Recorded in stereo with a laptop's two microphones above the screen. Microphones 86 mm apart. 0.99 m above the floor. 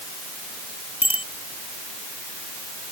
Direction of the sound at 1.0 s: 85° left.